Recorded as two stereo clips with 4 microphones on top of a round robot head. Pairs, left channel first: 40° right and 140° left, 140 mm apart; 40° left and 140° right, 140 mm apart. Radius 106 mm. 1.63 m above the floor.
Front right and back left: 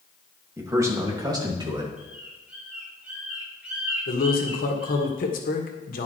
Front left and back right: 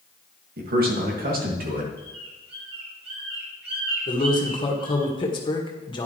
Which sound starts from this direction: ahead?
A man speaking, at 4.1 s.